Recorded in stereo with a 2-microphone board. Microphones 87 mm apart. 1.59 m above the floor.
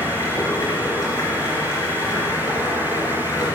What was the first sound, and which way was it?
Running water, 40° left (ahead or behind).